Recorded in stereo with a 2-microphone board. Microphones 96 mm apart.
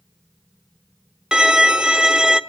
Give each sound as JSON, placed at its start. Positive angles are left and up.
{"t": 1.3, "sound": "a violin", "side_deg": -5, "distance_m": 0.6}